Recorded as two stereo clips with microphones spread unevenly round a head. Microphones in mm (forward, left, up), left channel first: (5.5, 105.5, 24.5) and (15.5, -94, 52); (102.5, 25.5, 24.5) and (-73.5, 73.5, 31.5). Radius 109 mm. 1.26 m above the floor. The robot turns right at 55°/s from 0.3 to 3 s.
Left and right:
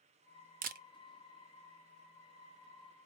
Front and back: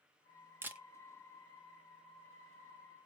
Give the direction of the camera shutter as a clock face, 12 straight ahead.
4 o'clock.